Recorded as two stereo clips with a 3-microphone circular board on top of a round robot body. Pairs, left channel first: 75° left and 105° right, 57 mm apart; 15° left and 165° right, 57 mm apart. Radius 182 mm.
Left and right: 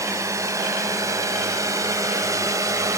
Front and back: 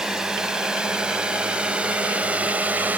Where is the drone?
85° right; by 3.0 s 105° right.